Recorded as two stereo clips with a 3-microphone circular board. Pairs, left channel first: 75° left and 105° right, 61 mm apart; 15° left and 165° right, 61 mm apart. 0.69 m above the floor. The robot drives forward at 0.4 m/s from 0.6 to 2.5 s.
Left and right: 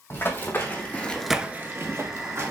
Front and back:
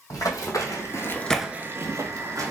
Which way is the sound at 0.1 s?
30° left.